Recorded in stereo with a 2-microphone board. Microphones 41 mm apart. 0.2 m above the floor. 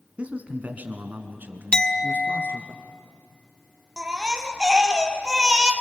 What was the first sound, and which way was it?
A man speaking, 35° right (ahead or behind).